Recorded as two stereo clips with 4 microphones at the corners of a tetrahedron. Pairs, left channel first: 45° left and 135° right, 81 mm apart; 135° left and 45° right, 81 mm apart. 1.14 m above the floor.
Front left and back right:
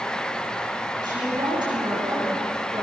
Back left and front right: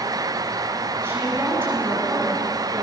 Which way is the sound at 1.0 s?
105° right.